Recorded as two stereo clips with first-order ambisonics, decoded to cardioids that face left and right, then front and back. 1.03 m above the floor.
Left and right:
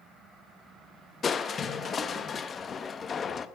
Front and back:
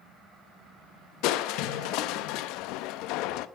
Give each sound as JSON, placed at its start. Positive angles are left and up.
{"t": 1.2, "sound": "crushing", "azimuth_deg": 20, "distance_m": 0.5}